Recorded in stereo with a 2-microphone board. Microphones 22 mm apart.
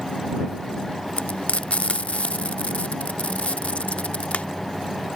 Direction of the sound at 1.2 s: 75° left (ahead or behind).